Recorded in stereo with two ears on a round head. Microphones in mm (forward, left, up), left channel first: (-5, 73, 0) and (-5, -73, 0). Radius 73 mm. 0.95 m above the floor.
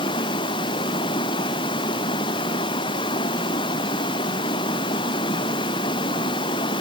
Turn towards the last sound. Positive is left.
turn(degrees=30)  # may be behind; listen again after turning